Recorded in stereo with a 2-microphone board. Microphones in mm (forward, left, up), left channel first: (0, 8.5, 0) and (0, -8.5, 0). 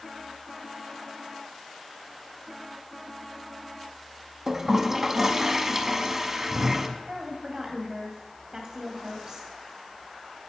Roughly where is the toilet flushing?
Centre.